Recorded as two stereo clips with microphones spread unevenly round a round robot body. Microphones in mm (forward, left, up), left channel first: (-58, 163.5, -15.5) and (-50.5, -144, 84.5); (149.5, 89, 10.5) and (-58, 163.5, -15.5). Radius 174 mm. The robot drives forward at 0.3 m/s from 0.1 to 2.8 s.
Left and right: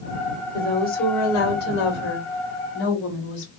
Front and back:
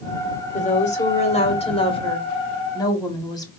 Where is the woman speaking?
40° left, 2 m; by 3.5 s 55° left, 1.7 m.